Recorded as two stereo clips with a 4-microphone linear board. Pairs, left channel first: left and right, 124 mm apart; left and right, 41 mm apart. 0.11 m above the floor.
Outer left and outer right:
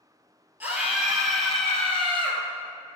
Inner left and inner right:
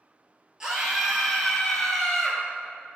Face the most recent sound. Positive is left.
turn(degrees=15)  # may be behind; listen again after turning